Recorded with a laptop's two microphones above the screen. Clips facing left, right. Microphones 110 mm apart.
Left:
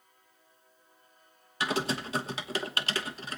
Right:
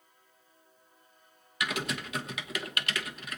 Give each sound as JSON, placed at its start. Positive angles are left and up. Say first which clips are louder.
{"t": 1.6, "sound": "typing on a keyboard", "louder": "left 4 dB", "side_deg": 30, "distance_m": 1.1}